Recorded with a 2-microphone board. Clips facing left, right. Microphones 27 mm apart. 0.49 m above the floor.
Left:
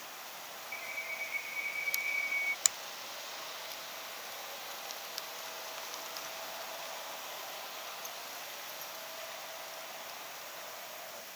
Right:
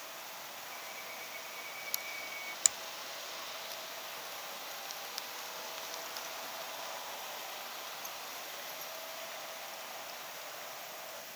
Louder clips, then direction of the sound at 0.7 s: Left 9 dB; 35° left (ahead or behind).